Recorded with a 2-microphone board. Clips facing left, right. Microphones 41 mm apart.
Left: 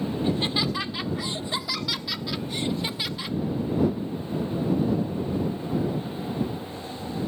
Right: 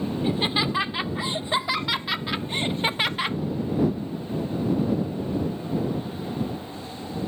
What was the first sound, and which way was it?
Laughter, 20° right (ahead or behind).